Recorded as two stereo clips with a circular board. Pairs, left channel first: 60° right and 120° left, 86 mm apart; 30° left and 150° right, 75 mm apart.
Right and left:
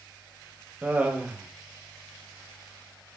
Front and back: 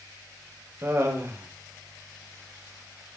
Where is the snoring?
I don't hear snoring.